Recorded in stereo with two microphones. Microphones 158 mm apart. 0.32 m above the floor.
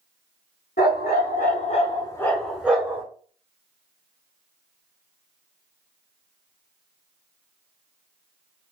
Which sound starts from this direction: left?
A dog barking, at 0.8 s.